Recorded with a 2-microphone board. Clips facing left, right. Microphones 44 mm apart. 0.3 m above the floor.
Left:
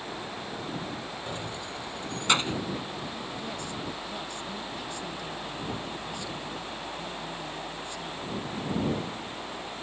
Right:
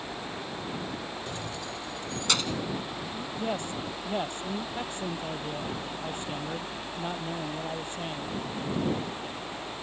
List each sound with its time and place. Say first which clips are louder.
1.3 s keys jangling: even; 20° left (ahead or behind); by 2.6 s 30° left (ahead or behind)
3.1 s a man speaking: right 4 dB; 40° right (ahead or behind)